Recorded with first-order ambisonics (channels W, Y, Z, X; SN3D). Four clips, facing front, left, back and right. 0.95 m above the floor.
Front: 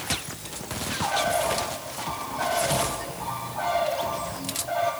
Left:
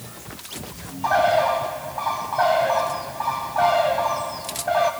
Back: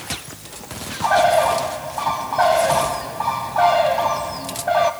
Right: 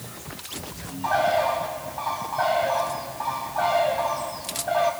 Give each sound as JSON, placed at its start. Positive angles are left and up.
{"t": 1.0, "sound": "a bird", "azimuth_deg": 165, "distance_m": 1.6}